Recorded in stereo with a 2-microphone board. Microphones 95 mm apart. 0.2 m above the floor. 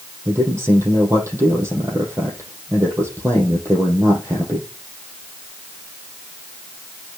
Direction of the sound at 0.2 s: 30° right (ahead or behind).